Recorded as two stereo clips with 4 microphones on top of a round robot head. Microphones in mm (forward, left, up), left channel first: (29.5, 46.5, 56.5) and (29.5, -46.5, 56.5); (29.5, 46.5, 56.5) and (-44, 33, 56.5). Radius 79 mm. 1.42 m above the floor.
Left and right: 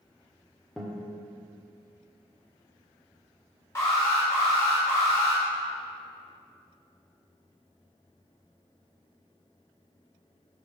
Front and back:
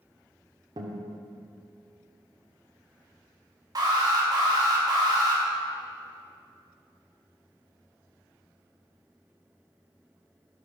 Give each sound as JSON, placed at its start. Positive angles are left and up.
{"t": 0.8, "sound": "a guitar", "azimuth_deg": 180, "distance_m": 1.3}
{"t": 3.8, "sound": "an alarm", "azimuth_deg": 155, "distance_m": 4.0}